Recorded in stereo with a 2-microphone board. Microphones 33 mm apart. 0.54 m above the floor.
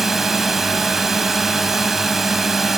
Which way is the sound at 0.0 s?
10° right (ahead or behind).